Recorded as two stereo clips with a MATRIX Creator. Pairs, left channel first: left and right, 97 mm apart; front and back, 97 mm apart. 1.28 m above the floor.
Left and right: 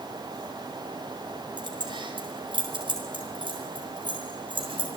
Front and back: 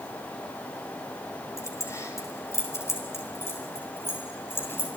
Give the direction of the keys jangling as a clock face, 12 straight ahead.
2 o'clock.